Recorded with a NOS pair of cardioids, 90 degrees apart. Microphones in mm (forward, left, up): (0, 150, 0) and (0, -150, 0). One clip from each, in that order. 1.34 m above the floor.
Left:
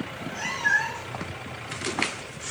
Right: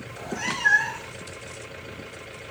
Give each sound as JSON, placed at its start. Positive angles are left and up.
{"t": 0.1, "sound": "a cat meowing", "azimuth_deg": -15, "distance_m": 1.7}